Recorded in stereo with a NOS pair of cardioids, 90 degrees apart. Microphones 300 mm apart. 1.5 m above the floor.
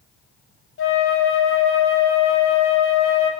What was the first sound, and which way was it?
A flute, 45° left.